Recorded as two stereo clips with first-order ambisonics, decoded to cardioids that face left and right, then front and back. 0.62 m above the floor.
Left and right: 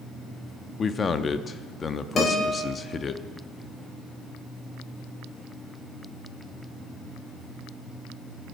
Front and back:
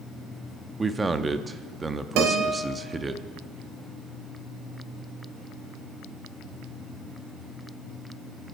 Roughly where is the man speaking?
Behind left.